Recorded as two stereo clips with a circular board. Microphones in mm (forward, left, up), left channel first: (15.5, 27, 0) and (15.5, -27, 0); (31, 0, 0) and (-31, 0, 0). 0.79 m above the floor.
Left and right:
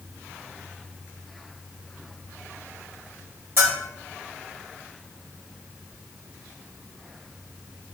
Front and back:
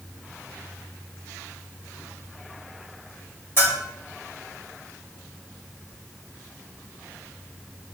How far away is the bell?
About 1.8 m.